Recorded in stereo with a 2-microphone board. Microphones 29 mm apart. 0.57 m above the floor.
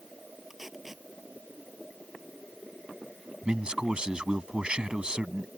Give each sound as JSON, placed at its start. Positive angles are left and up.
{"t": 0.5, "sound": "tape being pulled", "side_deg": -10}
{"t": 3.4, "sound": "a man speaking", "side_deg": -35}